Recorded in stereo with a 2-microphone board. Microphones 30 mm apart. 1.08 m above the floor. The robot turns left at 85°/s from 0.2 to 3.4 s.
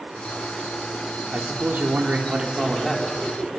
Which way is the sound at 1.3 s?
55° right.